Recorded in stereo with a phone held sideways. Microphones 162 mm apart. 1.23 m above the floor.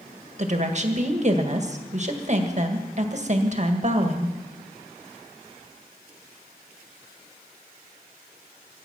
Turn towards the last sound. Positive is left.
turn(degrees=-45)  # may be behind; listen again after turning